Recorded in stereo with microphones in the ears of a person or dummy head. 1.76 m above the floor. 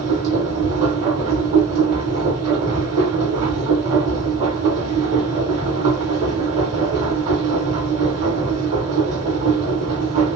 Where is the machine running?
45° right (ahead or behind), 1.2 m.